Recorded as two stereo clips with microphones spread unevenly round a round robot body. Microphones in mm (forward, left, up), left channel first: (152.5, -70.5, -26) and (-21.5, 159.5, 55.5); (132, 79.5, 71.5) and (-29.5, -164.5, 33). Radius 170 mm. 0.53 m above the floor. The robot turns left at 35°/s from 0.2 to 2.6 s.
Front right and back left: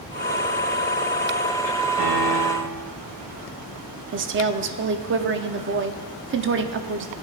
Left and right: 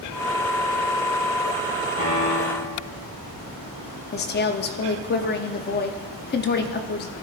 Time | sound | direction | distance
2.0 | a piano | 105° left | 4 m
4.1 | a woman speaking | 90° left | 0.8 m